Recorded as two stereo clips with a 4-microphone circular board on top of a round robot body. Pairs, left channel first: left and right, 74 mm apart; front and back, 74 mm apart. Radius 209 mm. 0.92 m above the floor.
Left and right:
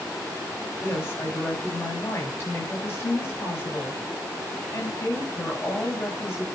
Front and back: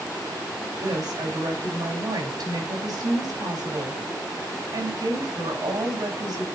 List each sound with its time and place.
0.8 s a woman speaking: 145° left, 7 m